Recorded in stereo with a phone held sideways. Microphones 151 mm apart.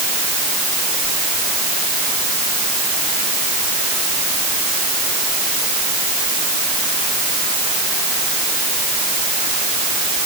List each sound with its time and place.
Only background noise.